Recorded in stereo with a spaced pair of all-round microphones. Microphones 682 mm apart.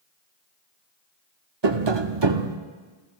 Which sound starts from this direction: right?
Tapping, at 1.6 s.